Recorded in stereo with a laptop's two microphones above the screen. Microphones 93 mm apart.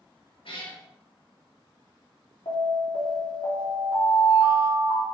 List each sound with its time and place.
0.5 s a cat meowing: 70° left (ahead or behind), 2.0 m
2.5 s an alarm: 70° left (ahead or behind), 3.5 m